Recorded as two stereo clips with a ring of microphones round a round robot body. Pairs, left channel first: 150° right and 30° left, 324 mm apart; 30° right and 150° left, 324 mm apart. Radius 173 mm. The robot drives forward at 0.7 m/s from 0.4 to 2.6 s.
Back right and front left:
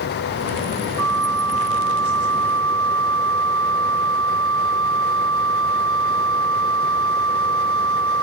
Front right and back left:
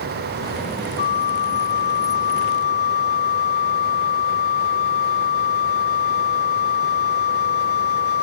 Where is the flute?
20° right; by 8.2 s 25° right.